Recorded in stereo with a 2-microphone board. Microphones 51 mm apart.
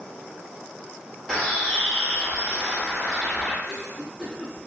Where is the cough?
Centre (ahead or behind), 1.0 m.